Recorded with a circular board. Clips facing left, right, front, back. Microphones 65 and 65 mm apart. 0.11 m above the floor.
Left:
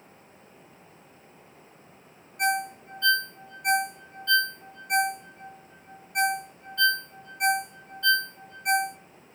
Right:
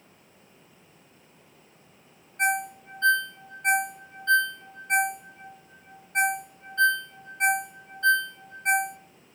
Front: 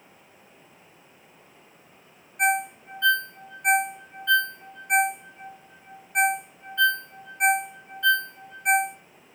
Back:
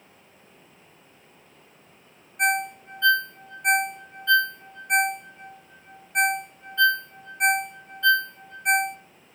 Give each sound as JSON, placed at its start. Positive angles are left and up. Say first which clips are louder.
{"t": 2.4, "sound": "a ringtone", "louder": "even, even", "azimuth_deg": -85, "distance_m": 0.5}